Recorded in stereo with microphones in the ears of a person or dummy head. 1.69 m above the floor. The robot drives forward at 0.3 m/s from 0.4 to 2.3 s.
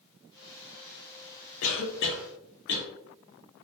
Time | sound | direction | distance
1.6 | a cough | 75° left (ahead or behind) | 0.5 m